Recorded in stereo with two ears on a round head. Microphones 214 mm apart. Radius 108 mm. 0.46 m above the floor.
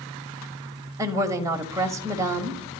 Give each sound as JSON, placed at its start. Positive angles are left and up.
{"t": 1.0, "sound": "a woman speaking", "side_deg": -10, "distance_m": 1.8}